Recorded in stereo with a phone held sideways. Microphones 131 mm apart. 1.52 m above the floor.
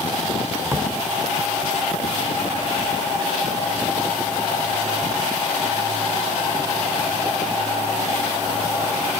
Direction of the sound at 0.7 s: 15° right (ahead or behind).